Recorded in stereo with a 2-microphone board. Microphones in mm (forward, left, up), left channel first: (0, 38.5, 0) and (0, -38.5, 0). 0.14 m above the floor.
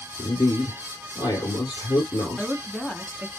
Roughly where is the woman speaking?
Centre.